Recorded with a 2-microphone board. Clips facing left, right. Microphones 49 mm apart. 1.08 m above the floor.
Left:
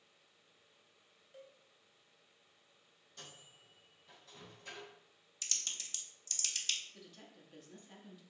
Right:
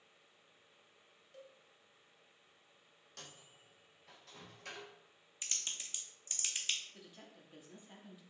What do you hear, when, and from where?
1.3 s a cowbell: 15° left (ahead or behind), 0.6 m
3.2 s a microwave: 75° right (ahead or behind), 1.0 m
5.4 s typing on a keyboard: 20° right (ahead or behind), 0.6 m
6.9 s a woman speaking: 10° right (ahead or behind), 0.7 m